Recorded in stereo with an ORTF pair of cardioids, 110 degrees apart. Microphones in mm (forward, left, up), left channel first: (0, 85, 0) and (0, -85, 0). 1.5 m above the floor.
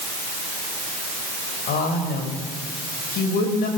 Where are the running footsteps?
No running footsteps in this recording.